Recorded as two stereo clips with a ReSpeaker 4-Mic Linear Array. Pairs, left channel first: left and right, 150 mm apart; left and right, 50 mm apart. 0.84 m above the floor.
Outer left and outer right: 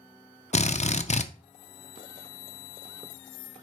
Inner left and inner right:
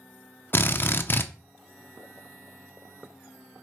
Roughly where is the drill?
Left.